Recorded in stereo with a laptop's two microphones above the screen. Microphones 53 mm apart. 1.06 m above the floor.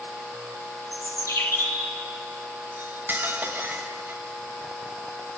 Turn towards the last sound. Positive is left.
turn(degrees=-40)  # may be behind; listen again after turning